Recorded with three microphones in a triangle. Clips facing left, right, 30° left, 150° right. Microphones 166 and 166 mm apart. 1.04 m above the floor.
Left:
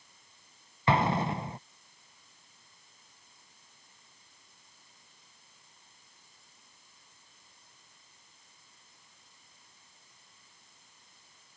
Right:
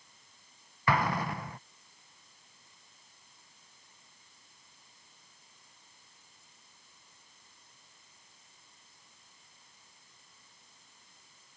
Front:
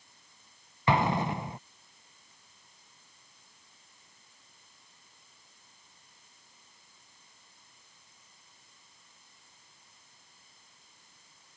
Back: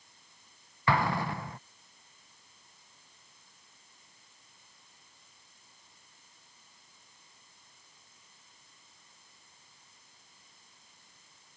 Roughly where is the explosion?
Left.